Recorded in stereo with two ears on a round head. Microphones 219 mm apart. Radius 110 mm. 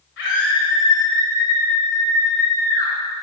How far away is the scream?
About 2 m.